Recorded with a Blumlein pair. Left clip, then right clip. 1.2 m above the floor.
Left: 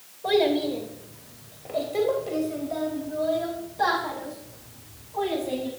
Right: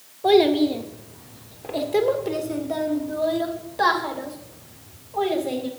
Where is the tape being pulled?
No tape being pulled in this recording.